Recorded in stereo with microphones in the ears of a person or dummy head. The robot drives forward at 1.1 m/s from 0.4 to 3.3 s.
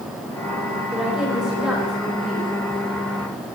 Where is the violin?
No violin in this recording.